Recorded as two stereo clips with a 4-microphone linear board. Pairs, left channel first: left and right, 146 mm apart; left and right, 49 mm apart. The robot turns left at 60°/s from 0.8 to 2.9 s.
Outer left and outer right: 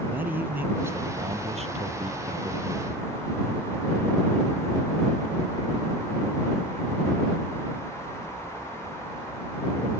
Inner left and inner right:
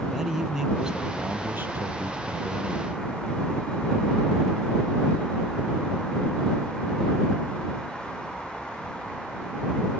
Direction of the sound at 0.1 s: 15° right.